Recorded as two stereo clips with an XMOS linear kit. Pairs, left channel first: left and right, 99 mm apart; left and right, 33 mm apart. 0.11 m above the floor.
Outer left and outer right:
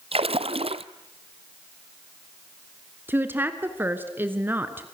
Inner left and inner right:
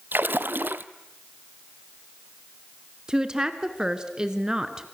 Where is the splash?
70° right (ahead or behind), 0.9 m.